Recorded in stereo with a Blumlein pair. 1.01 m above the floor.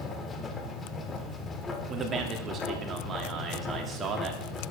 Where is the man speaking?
20° right, 2 m.